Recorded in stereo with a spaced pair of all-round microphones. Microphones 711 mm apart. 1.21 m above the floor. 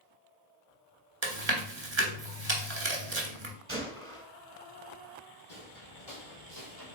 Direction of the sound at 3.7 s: 20° right (ahead or behind).